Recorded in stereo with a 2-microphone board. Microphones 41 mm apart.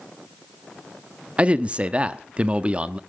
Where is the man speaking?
30° right (ahead or behind), 0.8 m.